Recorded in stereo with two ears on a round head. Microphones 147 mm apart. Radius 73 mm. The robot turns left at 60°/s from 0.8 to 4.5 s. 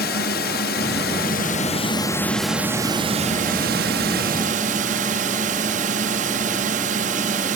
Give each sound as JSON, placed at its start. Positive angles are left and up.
{"t": 0.0, "sound": "a drone", "azimuth_deg": 100}